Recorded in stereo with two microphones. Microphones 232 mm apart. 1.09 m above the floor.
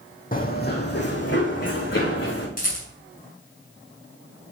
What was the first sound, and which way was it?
Running footsteps, 35° left (ahead or behind).